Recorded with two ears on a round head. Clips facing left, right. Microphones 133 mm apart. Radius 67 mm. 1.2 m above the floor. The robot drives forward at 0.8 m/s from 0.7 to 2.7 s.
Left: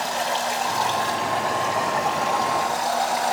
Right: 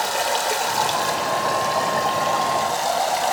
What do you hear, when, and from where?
0.0 s running water: 60° right (ahead or behind), 1.5 m; by 3.3 s 30° right (ahead or behind), 2.5 m